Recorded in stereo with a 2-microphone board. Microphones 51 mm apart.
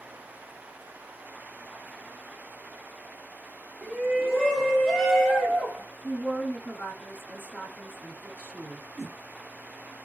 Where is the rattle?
No rattle in this recording.